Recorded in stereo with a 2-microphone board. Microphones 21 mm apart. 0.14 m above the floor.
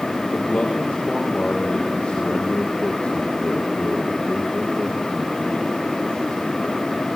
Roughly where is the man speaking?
Left.